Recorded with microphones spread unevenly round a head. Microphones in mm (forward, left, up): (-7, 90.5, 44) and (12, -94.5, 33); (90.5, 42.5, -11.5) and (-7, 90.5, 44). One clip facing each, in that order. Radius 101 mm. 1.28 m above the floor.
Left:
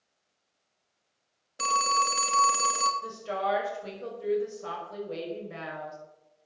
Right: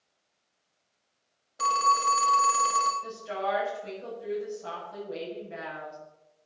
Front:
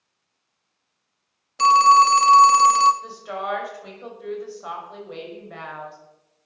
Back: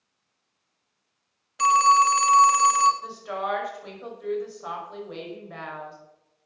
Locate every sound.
1.6 s a phone ringing: 35° left, 1.4 m
3.0 s a woman speaking: 65° left, 5.5 m